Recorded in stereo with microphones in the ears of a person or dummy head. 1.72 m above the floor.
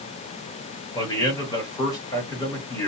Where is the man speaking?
20° left (ahead or behind), 2.5 m.